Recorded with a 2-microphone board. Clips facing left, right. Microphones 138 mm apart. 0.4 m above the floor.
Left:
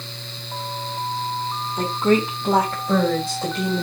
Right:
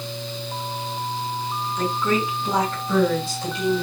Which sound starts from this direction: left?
A woman speaking, at 1.8 s.